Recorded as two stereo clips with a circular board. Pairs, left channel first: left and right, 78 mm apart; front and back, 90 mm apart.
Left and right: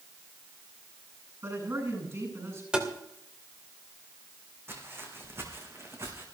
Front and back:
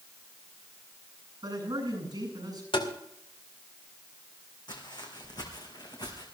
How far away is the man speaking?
About 8 m.